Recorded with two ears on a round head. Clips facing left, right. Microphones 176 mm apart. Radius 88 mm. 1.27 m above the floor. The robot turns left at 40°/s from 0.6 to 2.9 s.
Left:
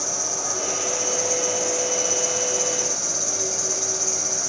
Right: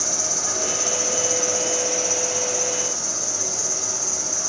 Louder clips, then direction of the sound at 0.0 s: Even; 135° right.